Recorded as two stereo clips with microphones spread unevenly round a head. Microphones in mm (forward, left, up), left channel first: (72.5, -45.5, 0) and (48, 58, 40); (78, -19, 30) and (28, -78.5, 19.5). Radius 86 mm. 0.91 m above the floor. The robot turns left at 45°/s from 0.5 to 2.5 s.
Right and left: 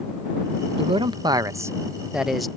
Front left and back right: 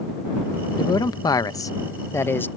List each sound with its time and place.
0.8 s a man speaking: 65° left; by 2.5 s 15° right